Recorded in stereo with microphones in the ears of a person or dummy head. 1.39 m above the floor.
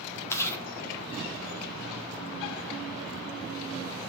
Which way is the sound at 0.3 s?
15° left (ahead or behind).